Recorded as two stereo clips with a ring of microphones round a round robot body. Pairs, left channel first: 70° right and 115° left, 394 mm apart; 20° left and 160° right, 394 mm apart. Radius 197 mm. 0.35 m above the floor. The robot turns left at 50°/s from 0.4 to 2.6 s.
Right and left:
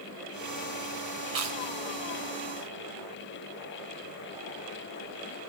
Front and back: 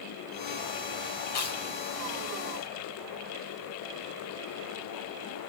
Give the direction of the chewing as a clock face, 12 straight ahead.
9 o'clock.